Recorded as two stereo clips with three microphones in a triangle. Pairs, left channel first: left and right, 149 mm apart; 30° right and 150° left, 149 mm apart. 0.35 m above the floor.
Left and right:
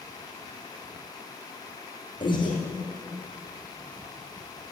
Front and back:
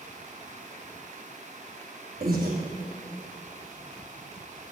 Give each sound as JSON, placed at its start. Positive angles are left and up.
{"t": 2.2, "sound": "breathing", "azimuth_deg": 145, "distance_m": 3.0}